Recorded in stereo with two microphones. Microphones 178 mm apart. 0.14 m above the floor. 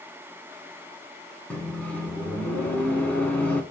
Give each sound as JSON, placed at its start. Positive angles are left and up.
{"t": 1.5, "sound": "a microwave", "side_deg": 10, "distance_m": 0.9}